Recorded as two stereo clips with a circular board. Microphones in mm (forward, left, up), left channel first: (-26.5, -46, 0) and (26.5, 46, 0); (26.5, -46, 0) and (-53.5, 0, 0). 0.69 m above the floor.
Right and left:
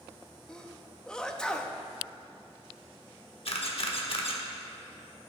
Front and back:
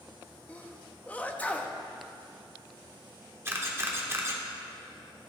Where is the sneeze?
55° right, 0.6 m.